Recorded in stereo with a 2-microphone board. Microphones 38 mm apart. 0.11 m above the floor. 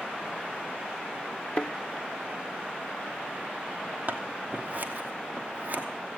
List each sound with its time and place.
1.6 s a thud: 30° left (ahead or behind), 0.6 m
4.1 s scissors: 45° right (ahead or behind), 1.2 m